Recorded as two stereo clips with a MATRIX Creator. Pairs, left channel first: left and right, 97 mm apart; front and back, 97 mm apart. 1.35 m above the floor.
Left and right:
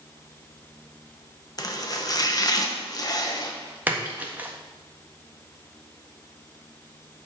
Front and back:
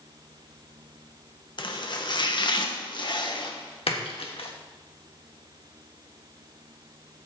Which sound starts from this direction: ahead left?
Chopping, at 1.6 s.